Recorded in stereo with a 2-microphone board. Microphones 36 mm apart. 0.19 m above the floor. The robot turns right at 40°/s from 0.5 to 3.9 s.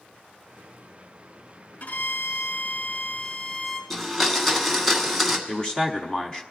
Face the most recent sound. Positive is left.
turn(degrees=20)  # may be behind; listen again after turning